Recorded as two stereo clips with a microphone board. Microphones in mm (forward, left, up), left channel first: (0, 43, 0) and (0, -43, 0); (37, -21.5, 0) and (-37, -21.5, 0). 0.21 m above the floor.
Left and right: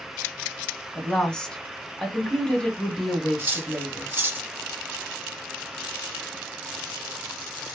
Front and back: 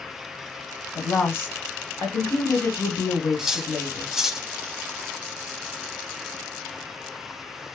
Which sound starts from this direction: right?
Cutlery clinking, at 3.4 s.